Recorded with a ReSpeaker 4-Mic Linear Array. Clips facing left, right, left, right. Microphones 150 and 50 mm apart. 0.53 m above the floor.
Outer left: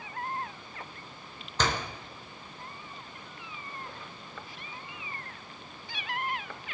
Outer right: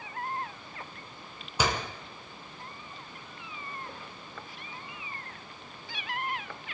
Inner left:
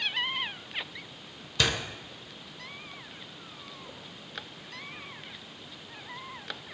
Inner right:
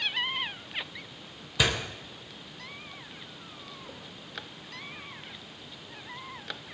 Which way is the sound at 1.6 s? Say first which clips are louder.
Outer right 1 dB, inner right 1 dB; 10° right (ahead or behind).